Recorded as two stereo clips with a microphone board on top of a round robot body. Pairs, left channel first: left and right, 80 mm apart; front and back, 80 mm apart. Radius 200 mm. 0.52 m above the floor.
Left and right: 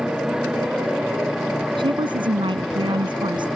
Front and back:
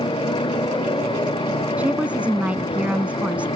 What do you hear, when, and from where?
0.0 s a motorcycle: 10° right; by 3.6 s straight ahead
1.8 s a woman speaking: 105° right